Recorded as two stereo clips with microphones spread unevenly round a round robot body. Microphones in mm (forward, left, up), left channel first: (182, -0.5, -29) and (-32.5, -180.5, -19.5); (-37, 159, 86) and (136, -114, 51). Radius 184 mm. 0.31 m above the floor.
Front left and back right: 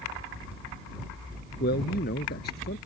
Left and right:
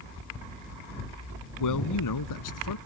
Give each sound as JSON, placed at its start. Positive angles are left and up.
{"t": 1.6, "sound": "a man speaking", "azimuth_deg": 100}